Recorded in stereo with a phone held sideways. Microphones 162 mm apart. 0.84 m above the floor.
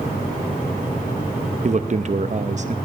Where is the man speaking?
50° right (ahead or behind), 0.6 m.